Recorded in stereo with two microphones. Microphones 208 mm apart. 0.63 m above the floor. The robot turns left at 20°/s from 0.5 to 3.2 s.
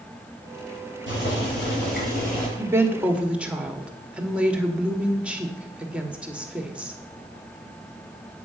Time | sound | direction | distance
1.1 | boiling | 65° left (ahead or behind) | 6 m
2.6 | a woman speaking | 15° right (ahead or behind) | 1.3 m